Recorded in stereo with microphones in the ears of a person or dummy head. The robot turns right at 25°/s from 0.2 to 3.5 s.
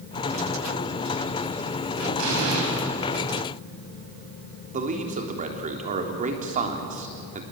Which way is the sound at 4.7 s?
35° right (ahead or behind).